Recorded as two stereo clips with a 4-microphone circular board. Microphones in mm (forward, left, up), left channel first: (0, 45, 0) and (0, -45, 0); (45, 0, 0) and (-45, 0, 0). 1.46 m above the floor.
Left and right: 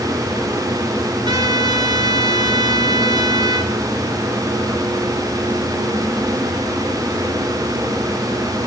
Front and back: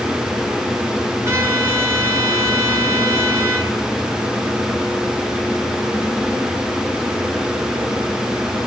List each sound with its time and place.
1.2 s a trumpet: 120° right, 2.5 m